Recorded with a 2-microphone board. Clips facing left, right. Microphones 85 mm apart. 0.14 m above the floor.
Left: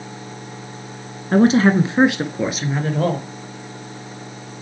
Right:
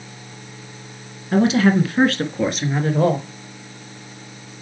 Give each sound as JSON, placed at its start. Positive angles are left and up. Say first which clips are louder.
{"t": 1.3, "sound": "a woman speaking", "louder": "left 2 dB", "side_deg": 45, "distance_m": 1.4}